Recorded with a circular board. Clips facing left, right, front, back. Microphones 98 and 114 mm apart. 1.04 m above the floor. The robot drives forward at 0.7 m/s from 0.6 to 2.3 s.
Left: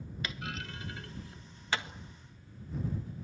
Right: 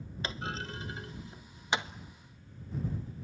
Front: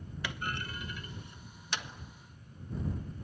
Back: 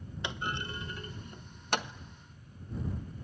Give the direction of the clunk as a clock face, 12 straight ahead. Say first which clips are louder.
Right 4 dB, back 2 dB; 4 o'clock.